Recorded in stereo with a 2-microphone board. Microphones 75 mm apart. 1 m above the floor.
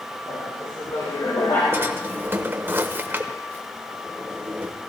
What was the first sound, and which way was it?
Laughter, 75° left (ahead or behind).